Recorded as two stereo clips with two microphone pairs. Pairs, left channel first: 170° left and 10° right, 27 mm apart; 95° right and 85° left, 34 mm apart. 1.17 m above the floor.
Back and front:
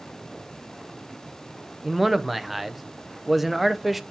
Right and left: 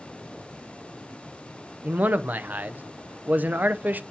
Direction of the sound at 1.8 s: 75° left.